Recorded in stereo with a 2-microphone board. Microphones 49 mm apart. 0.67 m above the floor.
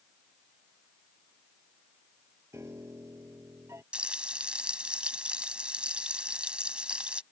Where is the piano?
75° right (ahead or behind).